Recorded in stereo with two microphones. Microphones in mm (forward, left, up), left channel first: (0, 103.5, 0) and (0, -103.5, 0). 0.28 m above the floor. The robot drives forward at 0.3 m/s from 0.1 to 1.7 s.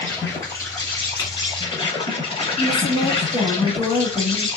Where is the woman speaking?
25° left (ahead or behind), 1.9 m.